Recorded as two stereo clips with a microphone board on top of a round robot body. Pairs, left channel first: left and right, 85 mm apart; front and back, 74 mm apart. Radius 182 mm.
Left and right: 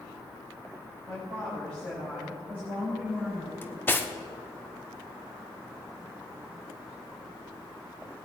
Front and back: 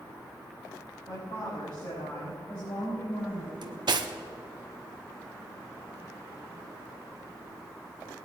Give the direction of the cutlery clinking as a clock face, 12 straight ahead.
7 o'clock.